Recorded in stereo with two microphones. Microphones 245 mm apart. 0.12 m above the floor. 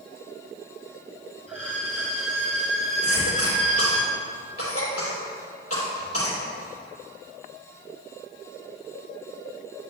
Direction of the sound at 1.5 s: 30° right (ahead or behind).